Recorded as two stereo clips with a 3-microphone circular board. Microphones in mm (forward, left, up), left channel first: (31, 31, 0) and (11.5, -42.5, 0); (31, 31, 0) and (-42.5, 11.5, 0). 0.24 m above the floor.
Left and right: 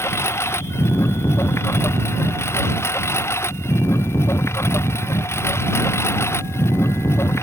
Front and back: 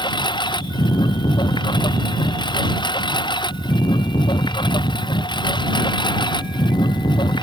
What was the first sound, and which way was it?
A lawn mower, 20° left.